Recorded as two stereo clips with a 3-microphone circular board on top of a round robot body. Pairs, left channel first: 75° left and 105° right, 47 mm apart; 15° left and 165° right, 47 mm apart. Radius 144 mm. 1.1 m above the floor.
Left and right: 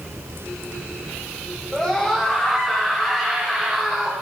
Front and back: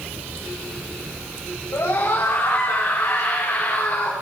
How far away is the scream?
About 6 m.